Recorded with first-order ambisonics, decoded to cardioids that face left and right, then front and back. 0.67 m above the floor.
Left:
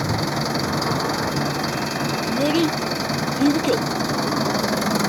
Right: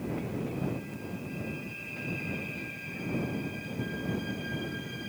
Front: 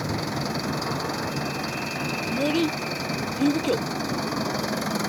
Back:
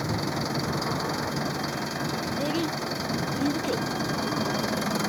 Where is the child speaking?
70° left.